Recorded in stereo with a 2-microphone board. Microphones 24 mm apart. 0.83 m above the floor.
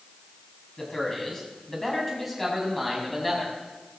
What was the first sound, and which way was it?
A man speaking, 15° left (ahead or behind).